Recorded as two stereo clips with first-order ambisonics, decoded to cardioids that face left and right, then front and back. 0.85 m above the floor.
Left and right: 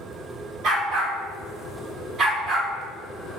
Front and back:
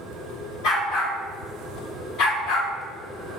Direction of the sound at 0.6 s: 35° right.